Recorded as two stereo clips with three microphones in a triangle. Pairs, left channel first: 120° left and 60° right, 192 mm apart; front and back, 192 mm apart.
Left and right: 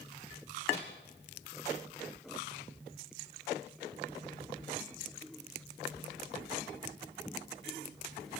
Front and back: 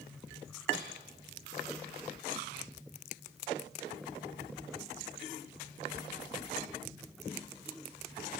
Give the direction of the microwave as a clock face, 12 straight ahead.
6 o'clock.